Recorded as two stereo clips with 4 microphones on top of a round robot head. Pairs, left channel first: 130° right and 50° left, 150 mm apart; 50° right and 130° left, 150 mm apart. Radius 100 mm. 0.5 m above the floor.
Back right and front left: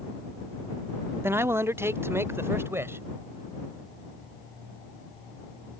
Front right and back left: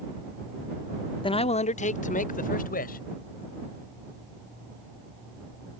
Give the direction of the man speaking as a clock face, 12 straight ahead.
1 o'clock.